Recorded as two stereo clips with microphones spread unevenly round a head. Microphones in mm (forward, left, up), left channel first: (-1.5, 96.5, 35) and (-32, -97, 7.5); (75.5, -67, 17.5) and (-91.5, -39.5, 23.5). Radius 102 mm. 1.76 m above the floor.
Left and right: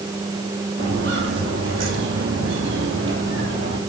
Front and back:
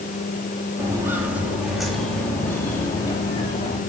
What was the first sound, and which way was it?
Footsteps, 125° right.